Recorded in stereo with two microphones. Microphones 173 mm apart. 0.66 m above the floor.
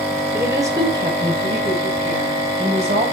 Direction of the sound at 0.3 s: 15° right (ahead or behind).